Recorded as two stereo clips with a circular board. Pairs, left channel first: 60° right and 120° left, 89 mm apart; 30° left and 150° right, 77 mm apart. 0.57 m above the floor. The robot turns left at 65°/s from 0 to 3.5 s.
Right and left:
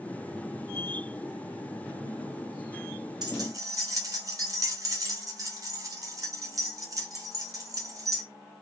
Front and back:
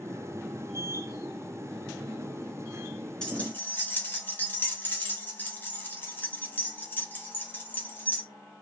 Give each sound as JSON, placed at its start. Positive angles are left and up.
{"t": 3.2, "sound": "keys jangling", "azimuth_deg": 105, "distance_m": 0.8}